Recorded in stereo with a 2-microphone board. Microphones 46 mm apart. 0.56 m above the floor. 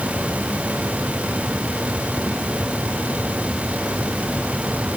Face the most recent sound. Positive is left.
No sound to turn to.